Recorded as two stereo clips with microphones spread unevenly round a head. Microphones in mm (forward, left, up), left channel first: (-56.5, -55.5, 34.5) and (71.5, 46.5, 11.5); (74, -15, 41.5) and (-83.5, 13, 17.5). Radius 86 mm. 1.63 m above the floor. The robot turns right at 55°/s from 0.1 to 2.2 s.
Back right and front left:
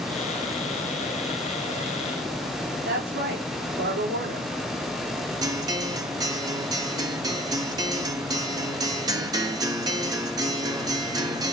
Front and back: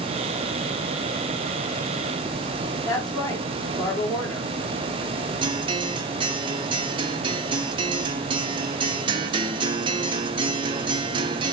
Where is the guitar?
110° left, 1.6 m.